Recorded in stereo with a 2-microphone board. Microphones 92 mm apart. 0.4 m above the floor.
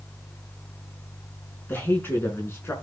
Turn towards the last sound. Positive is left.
turn(degrees=25)  # may be behind; listen again after turning